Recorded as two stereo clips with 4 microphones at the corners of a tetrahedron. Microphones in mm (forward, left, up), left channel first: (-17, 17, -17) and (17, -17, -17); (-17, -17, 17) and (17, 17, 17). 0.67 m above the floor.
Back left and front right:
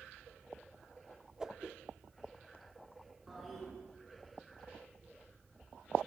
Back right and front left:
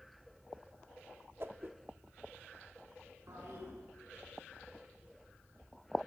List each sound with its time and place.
1.4 s a whoosh: 30° left, 1.2 m
3.3 s a toilet flushing: 45° left, 7 m